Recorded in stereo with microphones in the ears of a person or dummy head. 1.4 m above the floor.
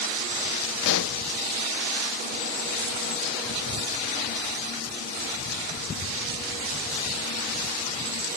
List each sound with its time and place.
0.8 s a pop: 65° left (ahead or behind)